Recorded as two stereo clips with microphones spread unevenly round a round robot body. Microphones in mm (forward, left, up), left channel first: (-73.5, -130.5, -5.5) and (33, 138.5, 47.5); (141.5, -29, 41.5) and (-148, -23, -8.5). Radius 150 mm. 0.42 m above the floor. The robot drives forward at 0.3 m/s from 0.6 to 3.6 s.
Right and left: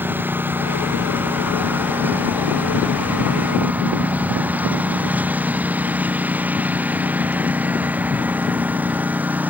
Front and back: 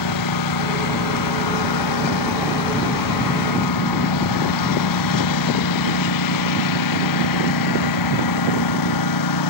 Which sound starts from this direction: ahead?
A lawn mower, at 0.0 s.